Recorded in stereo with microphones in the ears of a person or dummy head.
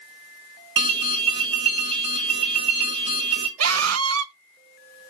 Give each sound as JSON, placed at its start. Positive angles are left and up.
{"t": 0.8, "sound": "an alarm", "side_deg": -35, "distance_m": 1.8}
{"t": 3.6, "sound": "a scream", "side_deg": -85, "distance_m": 0.8}